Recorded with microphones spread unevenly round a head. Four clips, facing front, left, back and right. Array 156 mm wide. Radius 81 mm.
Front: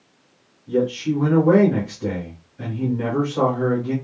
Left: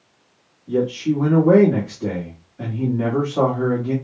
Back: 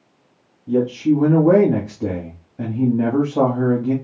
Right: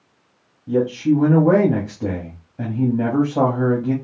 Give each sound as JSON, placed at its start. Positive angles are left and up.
{"t": 0.7, "sound": "a man speaking", "azimuth_deg": -150, "distance_m": 1.9}